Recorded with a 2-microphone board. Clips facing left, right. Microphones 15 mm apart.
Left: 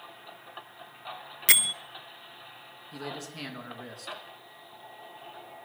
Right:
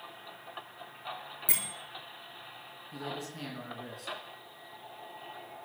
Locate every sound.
1.5 s a bell: 75° left (ahead or behind), 0.6 m
2.9 s a man speaking: 25° left (ahead or behind), 3 m